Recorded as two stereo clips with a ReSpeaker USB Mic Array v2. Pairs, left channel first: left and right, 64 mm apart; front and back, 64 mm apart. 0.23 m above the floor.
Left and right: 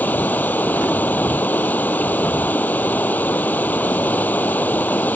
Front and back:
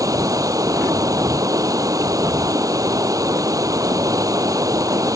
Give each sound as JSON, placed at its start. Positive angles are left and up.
{"t": 0.0, "sound": "running water", "azimuth_deg": 150}